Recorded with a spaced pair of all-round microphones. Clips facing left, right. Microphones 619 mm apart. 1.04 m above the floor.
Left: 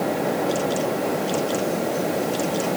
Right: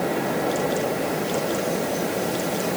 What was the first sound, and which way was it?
Only background noise.